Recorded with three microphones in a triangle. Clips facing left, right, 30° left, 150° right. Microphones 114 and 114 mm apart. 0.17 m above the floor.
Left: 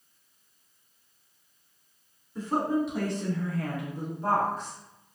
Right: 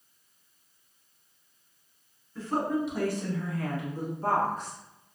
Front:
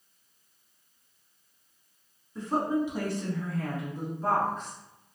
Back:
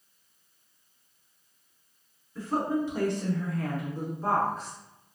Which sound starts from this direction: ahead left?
A woman speaking, at 2.4 s.